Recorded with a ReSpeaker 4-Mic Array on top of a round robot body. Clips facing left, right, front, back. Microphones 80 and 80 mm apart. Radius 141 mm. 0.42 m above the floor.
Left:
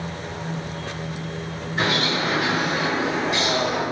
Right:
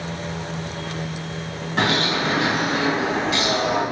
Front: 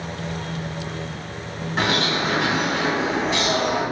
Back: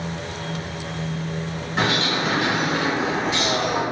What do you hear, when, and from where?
1.8 s a bird: 95° right, 1.9 m